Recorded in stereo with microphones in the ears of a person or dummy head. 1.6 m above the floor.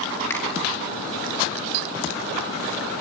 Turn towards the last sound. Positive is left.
turn(degrees=10)  # may be behind; listen again after turning